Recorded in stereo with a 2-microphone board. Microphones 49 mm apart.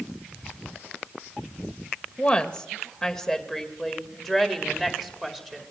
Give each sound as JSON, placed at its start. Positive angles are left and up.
{"t": 2.2, "sound": "a woman speaking", "side_deg": 15, "distance_m": 2.0}